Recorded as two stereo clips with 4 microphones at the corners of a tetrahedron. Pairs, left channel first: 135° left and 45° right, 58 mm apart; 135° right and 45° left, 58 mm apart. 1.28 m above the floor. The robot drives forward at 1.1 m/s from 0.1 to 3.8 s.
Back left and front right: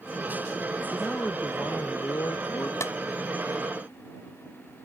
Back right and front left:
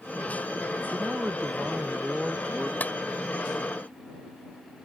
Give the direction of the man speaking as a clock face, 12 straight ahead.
9 o'clock.